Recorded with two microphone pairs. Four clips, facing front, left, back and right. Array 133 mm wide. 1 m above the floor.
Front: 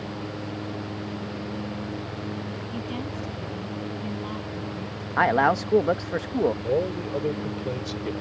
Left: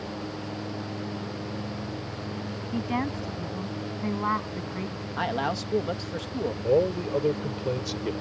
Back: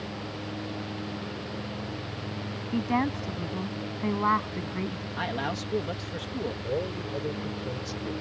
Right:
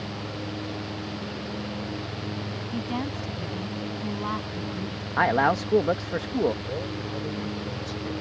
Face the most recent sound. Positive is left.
turn(degrees=60)